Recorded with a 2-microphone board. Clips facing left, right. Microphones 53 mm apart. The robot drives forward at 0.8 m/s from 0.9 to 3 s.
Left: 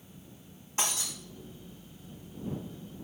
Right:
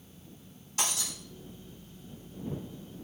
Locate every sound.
0.8 s breaking glass: 30° left (ahead or behind), 4.5 m